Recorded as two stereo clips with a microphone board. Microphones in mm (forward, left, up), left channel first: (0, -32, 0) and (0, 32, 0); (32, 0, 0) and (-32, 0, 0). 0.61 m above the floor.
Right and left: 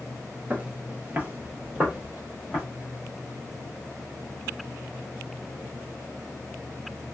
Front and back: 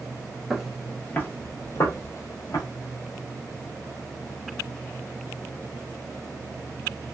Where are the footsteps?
105° left, 0.6 m; by 2.6 s 25° left, 1.3 m.